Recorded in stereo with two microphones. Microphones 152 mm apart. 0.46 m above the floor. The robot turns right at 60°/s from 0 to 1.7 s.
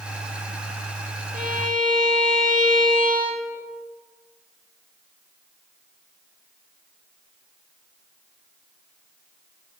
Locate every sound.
1.3 s a violin: 65° right (ahead or behind), 1.1 m